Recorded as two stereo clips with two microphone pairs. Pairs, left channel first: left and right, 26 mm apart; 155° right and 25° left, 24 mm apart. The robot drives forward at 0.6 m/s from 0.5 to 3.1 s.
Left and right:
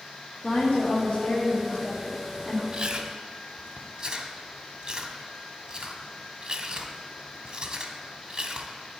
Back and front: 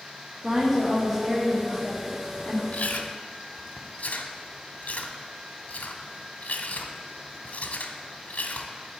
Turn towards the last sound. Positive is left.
turn(degrees=-160)